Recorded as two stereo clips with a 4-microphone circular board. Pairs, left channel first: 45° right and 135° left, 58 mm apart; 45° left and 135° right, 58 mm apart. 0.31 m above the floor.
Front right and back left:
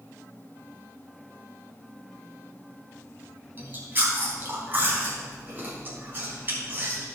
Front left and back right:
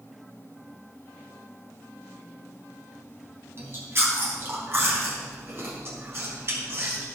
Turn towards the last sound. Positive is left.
turn(degrees=-175)